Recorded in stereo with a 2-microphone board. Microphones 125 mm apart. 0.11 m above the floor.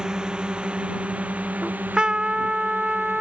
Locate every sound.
0.0 s a drone: 5° right (ahead or behind); by 3.2 s 15° right (ahead or behind)
1.6 s a trumpet: 5° right (ahead or behind)